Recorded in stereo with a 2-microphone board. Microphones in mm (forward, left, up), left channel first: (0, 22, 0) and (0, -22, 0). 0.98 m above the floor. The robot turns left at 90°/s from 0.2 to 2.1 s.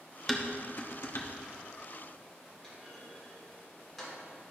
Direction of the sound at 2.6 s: 5° left (ahead or behind).